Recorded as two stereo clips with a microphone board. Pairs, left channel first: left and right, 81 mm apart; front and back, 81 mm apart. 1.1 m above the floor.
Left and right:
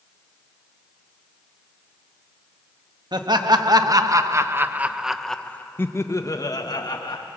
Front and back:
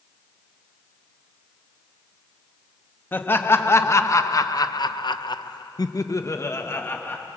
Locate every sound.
3.1 s laughter: 65° right, 1.7 m; by 7.3 s 65° left, 1.7 m